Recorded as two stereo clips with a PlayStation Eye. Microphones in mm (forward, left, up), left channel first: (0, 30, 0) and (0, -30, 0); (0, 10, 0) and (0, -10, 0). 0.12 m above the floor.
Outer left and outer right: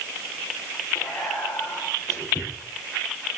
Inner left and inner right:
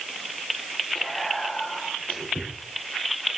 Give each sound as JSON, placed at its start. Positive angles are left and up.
{"t": 0.9, "sound": "whispering", "side_deg": 80, "distance_m": 8.5}